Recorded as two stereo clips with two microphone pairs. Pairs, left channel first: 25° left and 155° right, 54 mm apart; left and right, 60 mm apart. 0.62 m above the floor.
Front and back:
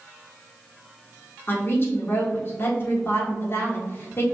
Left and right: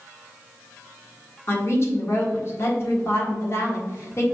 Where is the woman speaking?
60° left, 1.4 m.